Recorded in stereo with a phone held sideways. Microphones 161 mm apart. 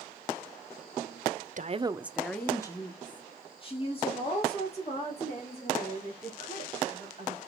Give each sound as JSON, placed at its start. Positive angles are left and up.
{"t": 1.6, "sound": "a woman speaking", "side_deg": -55, "distance_m": 0.6}